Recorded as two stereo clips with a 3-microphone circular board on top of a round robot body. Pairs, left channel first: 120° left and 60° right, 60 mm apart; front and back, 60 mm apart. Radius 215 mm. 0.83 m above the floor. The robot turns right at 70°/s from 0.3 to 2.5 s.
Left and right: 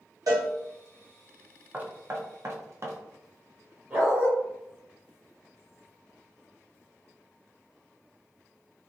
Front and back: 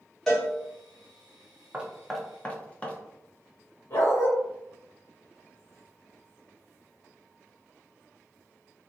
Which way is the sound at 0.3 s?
85° right.